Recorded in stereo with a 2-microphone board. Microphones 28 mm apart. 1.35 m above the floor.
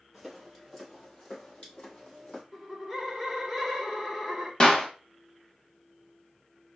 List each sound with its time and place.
0.1 s footsteps: 5° left (ahead or behind), 2 m; by 2.4 s 45° left (ahead or behind), 3 m
2.5 s laughter: 10° left (ahead or behind), 1.3 m
4.6 s a clap: 30° left (ahead or behind), 0.9 m